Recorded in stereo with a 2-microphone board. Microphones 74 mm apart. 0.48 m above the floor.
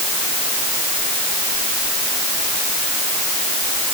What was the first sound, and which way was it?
Only background noise.